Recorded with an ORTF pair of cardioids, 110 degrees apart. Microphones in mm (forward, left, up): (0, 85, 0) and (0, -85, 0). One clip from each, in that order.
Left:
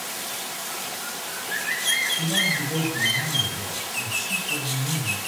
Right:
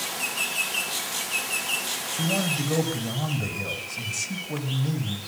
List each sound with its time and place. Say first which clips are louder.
2.2 s a man speaking: left 3 dB; 35° right, 6 m